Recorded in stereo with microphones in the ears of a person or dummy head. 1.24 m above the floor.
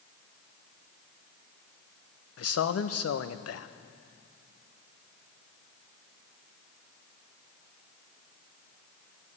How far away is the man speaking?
About 0.7 m.